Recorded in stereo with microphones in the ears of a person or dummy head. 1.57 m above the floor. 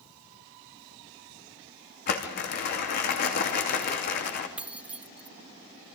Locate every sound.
2.1 s crumpling: 55° left (ahead or behind), 2.5 m
4.6 s keys jangling: 5° right (ahead or behind), 0.5 m